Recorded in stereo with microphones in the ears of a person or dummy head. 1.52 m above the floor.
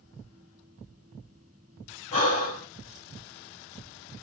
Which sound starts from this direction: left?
Breathing, at 2.1 s.